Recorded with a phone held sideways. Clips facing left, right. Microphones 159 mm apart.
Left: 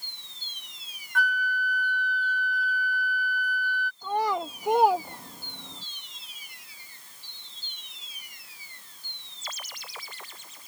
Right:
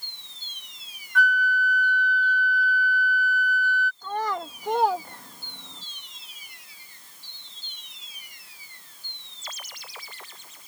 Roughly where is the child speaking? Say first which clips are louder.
Left 6 dB; centre.